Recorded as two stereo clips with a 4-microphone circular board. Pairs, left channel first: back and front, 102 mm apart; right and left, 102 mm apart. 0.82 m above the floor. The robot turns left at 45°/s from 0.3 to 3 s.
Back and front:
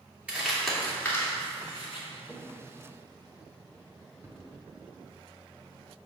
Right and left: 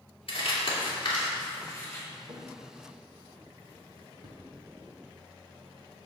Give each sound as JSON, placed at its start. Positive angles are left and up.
{"t": 0.3, "sound": "crumpling", "azimuth_deg": -75, "distance_m": 2.0}
{"t": 2.2, "sound": "a drawer", "azimuth_deg": 90, "distance_m": 1.4}